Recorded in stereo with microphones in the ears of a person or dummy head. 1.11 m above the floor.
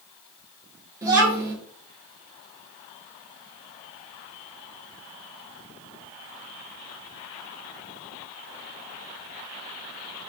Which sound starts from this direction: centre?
A child speaking, at 1.0 s.